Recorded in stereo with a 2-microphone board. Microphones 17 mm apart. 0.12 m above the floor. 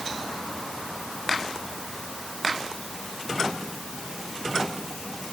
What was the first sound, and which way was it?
Only background noise.